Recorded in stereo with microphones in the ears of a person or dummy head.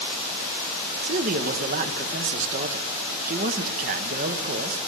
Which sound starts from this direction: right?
A man speaking, at 1.0 s.